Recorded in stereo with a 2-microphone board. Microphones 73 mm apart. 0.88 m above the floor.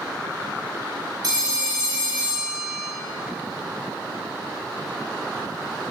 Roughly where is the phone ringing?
Right.